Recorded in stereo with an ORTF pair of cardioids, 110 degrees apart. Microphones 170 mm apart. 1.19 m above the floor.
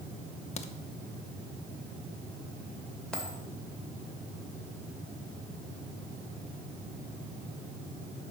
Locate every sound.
0.6 s a crack: 40° left, 0.9 m
3.1 s a dropped coin: 5° left, 2 m